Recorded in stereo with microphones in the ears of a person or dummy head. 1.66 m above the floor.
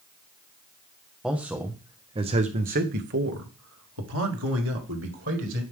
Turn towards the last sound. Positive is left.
turn(degrees=-70)  # may be behind; listen again after turning